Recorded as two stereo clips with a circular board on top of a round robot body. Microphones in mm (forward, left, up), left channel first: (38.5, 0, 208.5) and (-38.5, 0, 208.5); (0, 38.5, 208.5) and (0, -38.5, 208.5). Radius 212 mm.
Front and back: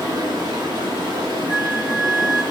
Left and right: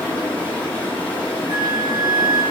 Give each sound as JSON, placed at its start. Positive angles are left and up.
{"t": 0.0, "sound": "running water", "azimuth_deg": 160, "distance_m": 2.5}
{"t": 1.5, "sound": "a flute", "azimuth_deg": -105, "distance_m": 1.3}